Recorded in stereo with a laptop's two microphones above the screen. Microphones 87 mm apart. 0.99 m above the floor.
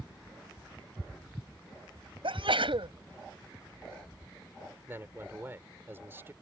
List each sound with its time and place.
2.2 s a sneeze: 75° right (ahead or behind)
4.9 s a man speaking: 25° right (ahead or behind)